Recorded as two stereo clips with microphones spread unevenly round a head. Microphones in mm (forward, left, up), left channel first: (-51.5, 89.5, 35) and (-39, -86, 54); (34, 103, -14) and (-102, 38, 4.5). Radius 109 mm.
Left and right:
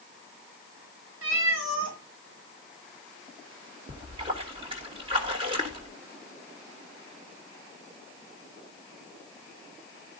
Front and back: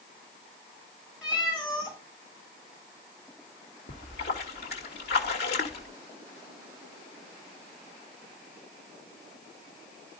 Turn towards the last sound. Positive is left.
turn(degrees=-20)